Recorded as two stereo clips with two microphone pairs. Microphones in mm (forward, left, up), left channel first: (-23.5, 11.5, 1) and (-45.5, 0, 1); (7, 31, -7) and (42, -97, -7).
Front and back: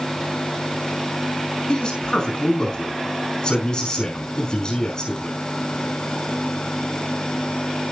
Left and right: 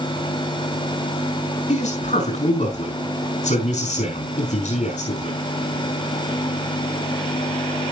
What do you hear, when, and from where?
1.7 s a man speaking: 75° left, 5 m